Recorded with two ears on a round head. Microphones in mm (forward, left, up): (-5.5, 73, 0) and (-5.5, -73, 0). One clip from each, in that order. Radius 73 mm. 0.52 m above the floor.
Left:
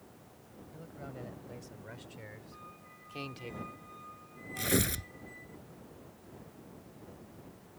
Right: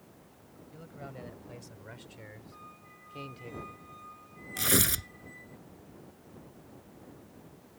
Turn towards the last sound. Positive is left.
turn(degrees=-25)  # may be behind; listen again after turning